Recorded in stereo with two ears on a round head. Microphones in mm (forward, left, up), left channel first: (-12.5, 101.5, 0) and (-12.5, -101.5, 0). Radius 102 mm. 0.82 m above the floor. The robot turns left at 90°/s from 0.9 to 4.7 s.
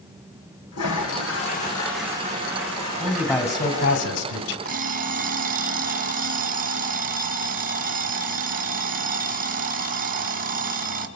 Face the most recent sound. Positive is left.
turn(degrees=-40)  # may be behind; listen again after turning